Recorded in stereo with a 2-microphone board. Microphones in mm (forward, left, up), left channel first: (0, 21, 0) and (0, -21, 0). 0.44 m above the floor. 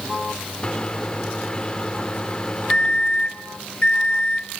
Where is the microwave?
25° left (ahead or behind), 0.9 m.